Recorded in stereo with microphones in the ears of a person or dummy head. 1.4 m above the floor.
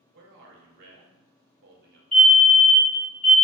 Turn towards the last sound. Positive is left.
turn(degrees=5)  # may be behind; listen again after turning